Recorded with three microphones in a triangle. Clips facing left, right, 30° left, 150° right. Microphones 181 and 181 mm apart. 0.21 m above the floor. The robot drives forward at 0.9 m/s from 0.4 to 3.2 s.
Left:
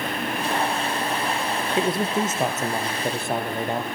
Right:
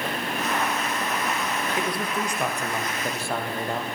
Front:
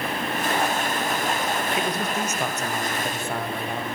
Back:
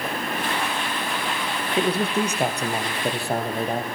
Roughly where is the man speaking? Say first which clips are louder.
Left 8 dB, back 4 dB; behind left.